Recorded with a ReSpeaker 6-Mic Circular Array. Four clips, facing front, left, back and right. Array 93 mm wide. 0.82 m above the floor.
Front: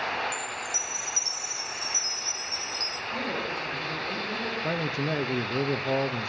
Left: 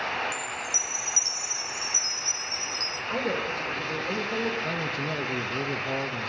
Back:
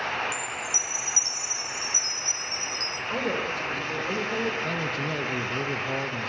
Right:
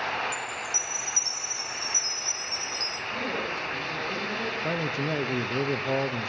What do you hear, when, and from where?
0.3 s a chime: 70° left, 1.4 m
3.1 s a woman speaking: 140° left, 3.5 m
4.6 s a man speaking: 45° right, 0.6 m